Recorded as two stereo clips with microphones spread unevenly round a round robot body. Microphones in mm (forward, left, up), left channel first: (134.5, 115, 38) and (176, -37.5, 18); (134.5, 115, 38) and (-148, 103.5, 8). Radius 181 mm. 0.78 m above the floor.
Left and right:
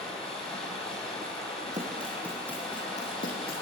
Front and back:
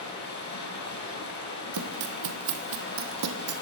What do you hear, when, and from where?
0.0 s running water: 55° left, 8.5 m
1.7 s running footsteps: 140° right, 1.7 m; by 3.6 s 145° left, 2 m